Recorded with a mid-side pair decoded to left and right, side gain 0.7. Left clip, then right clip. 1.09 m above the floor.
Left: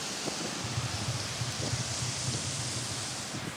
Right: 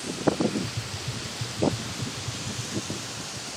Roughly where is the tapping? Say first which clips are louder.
Right 1 dB; ahead.